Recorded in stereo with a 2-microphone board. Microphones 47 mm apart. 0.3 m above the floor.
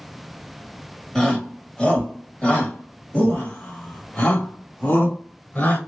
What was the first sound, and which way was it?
A shout, 15° left (ahead or behind).